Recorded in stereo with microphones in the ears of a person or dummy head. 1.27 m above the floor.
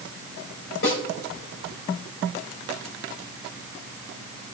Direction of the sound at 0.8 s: 60° left (ahead or behind).